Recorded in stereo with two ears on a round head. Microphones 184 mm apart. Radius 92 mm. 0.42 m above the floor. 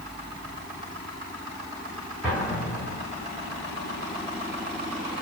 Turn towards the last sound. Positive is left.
turn(degrees=-5)  # may be behind; listen again after turning